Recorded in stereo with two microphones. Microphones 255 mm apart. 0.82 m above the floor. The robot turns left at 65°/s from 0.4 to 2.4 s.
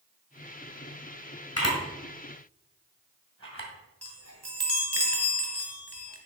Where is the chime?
70° right (ahead or behind), 1.5 m.